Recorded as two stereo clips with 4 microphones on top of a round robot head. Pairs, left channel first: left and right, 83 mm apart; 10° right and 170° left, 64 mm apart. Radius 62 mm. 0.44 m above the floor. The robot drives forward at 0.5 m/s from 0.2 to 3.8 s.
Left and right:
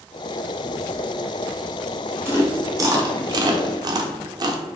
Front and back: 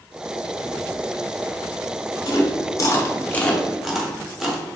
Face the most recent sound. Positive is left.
turn(degrees=-105)